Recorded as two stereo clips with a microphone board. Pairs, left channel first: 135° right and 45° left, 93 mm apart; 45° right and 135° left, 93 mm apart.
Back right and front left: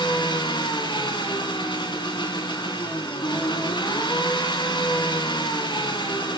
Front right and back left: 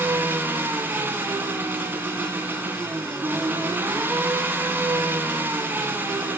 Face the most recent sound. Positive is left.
turn(degrees=-155)